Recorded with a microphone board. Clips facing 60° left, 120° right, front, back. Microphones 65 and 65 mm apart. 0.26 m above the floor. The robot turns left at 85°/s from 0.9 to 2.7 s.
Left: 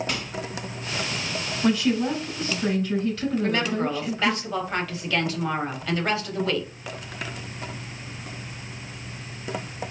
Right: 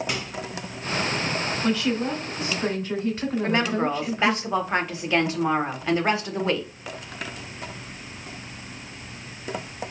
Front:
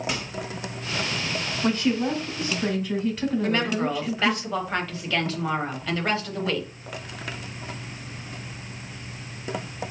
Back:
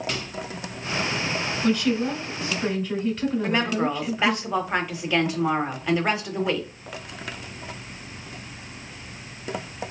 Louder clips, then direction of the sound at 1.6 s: Left 4 dB, even; 10° left.